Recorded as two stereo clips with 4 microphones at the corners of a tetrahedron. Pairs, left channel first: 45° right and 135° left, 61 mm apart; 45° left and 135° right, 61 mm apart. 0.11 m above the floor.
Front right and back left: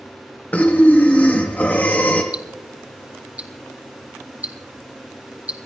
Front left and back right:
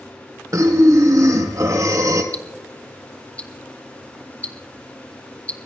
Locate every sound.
0.5 s breathing: 110° right, 2.5 m
2.3 s ticking: 95° left, 1.4 m